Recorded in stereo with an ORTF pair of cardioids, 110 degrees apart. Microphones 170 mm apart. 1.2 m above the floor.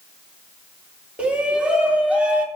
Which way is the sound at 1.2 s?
5° right.